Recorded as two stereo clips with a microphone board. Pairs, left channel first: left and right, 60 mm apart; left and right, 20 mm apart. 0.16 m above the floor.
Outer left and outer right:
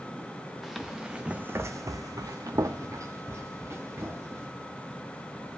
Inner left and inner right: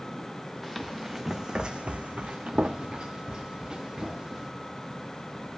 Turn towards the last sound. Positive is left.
turn(degrees=-45)  # may be behind; listen again after turning